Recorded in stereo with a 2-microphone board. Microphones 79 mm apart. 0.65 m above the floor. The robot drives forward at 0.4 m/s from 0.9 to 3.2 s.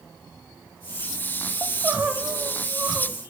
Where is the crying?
25° right (ahead or behind), 0.5 m; by 3.2 s 10° right (ahead or behind), 1.0 m.